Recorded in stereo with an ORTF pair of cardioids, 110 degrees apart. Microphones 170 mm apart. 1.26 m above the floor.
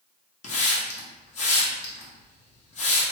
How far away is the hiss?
About 0.9 m.